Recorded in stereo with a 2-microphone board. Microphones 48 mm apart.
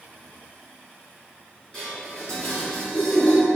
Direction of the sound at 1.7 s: 20° left (ahead or behind).